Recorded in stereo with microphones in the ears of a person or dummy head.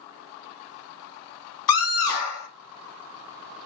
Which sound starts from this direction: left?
A scream, at 1.7 s.